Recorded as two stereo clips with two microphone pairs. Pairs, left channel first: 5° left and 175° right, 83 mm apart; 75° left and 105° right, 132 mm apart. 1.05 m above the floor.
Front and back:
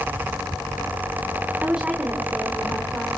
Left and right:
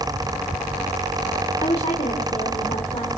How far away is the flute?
No flute in this recording.